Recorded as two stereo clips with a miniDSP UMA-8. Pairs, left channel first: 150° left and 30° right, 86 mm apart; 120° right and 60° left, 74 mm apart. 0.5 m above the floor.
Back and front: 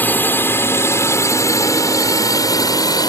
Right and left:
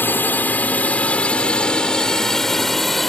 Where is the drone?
160° right; by 3.1 s 150° left.